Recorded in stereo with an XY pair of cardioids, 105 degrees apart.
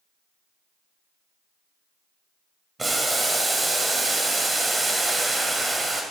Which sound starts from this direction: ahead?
Boiling, at 2.8 s.